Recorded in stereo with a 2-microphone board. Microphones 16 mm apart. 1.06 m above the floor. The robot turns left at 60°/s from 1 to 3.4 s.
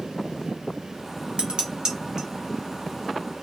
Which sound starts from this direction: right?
Dishes clattering, at 1.4 s.